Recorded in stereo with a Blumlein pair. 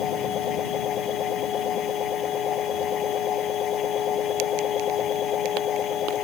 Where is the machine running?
30° left.